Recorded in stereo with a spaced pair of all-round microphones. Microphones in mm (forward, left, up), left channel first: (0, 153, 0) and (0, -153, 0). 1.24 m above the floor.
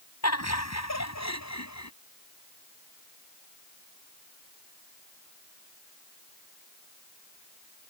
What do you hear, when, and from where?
0.2 s laughter: 50° left (ahead or behind); by 1.9 s 60° left (ahead or behind)